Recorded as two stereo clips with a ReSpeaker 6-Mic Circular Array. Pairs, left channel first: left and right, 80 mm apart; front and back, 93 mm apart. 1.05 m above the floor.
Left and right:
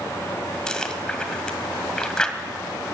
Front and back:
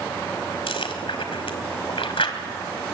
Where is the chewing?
10° left, 1.9 m.